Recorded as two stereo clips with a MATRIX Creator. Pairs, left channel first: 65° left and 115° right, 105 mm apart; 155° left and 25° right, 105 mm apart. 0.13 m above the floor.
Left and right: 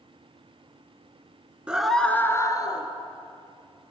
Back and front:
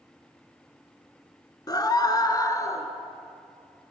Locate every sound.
1.7 s a scream: 175° left, 1.5 m; by 2.9 s 100° left, 2 m